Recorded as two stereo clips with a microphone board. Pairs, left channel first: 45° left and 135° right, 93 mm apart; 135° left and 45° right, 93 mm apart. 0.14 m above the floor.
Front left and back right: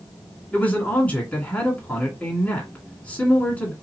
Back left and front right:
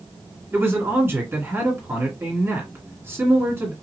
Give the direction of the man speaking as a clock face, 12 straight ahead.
12 o'clock.